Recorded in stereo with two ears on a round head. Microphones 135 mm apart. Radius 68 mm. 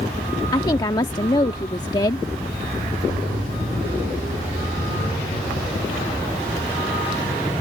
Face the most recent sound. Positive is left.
turn(degrees=30)  # may be behind; listen again after turning